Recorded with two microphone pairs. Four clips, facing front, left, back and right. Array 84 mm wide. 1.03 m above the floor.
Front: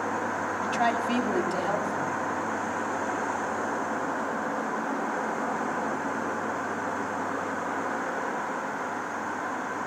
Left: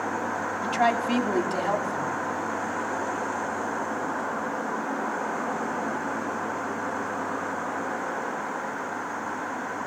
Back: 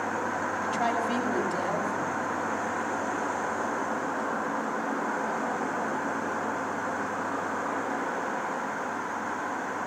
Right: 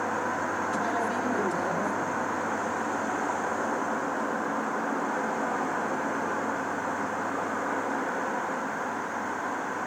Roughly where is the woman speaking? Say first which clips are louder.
Left 8 dB, front 3 dB; ahead left.